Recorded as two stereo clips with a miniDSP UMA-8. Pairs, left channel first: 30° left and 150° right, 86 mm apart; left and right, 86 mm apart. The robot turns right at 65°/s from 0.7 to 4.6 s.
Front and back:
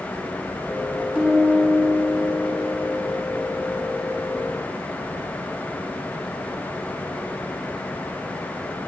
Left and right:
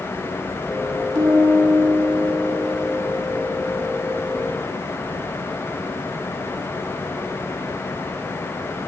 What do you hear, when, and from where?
1.1 s a piano: 75° right, 1.9 m; by 3.0 s 45° left, 1.9 m